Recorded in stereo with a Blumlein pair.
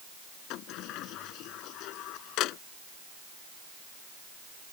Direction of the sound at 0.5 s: 40° left.